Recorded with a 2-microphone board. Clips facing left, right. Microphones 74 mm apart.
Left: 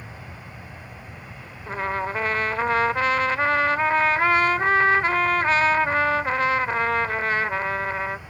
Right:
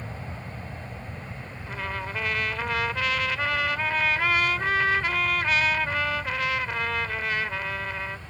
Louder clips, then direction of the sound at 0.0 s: Right 3 dB; 25° right (ahead or behind).